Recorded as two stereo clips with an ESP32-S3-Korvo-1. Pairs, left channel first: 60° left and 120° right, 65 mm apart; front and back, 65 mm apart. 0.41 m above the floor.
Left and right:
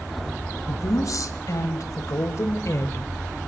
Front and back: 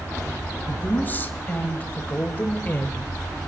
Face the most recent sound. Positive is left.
turn(degrees=50)